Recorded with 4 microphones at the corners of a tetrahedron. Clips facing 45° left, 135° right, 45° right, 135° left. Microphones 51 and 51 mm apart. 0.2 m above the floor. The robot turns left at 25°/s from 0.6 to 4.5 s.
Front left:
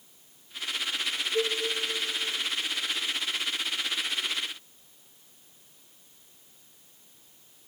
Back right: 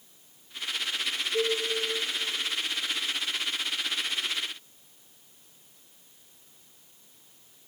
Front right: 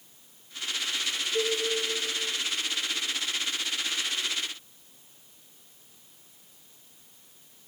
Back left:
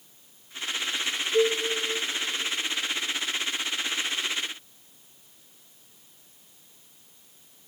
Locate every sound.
1.3 s a cowbell: 155° left, 3 m; by 1.6 s 145° left, 3 m